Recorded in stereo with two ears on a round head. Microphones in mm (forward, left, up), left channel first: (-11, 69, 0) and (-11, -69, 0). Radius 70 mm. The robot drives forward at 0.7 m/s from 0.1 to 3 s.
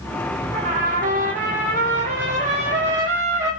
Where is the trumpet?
60° right (ahead or behind), 9.5 m; by 3.5 s 50° right (ahead or behind), 10.5 m.